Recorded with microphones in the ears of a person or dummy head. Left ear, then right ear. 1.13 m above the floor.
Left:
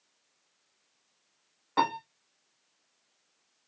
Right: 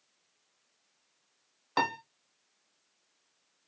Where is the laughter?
No laughter in this recording.